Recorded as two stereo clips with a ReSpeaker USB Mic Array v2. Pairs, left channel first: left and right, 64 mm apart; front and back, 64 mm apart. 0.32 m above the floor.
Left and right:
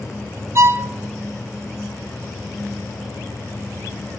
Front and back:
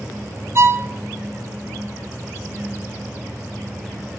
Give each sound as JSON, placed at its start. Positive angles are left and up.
{"t": 0.6, "sound": "a violin", "azimuth_deg": -135, "distance_m": 0.7}